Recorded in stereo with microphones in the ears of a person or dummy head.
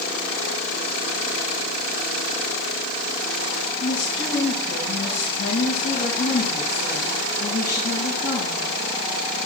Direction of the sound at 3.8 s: 85° left.